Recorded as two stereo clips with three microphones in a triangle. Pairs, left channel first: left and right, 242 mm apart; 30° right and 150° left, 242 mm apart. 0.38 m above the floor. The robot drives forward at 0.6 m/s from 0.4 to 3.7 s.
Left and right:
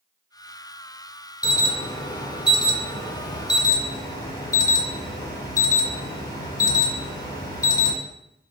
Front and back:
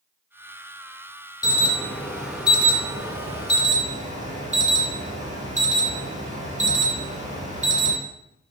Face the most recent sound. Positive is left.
turn(degrees=145)